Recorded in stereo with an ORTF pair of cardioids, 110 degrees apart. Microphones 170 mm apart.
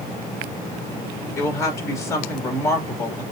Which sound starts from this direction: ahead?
A woman speaking, at 1.4 s.